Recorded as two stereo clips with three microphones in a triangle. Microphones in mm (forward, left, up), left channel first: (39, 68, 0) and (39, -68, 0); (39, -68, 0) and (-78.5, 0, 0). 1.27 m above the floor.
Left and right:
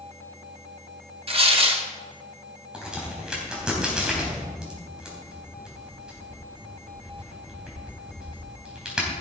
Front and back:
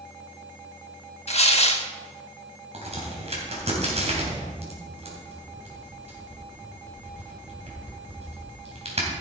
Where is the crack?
175° right, 3.5 m.